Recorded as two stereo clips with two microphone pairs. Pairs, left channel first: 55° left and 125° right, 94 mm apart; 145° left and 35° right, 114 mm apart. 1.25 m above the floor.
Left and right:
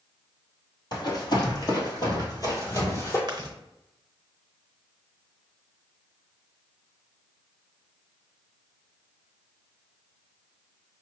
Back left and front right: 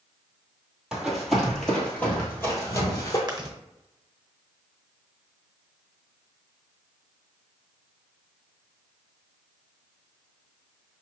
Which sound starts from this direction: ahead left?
Running footsteps, at 0.9 s.